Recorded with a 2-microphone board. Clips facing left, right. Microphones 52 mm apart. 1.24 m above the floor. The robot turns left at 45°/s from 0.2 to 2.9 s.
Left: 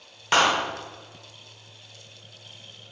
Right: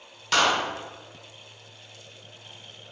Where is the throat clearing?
I don't hear throat clearing.